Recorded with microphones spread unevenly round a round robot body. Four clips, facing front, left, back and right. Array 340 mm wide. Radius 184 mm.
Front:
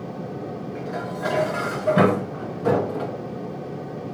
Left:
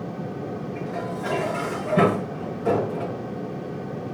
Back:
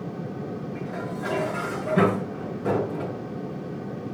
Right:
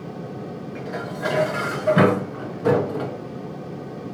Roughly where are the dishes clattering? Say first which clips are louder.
Right 2 dB, front 2 dB; right.